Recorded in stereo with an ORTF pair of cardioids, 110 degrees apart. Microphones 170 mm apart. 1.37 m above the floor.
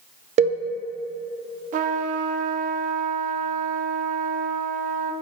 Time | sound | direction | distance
0.4 | a cowbell | 45° right | 0.6 m
1.7 | a trumpet | 50° right | 0.6 m